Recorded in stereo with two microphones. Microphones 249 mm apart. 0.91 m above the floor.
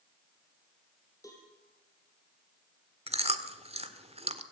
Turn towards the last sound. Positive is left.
turn(degrees=-25)  # may be behind; listen again after turning